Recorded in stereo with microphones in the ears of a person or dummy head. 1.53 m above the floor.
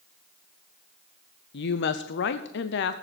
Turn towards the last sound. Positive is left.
turn(degrees=55)  # may be behind; listen again after turning